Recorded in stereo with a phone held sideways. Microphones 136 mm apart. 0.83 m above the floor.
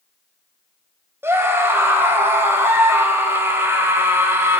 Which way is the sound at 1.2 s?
15° right (ahead or behind).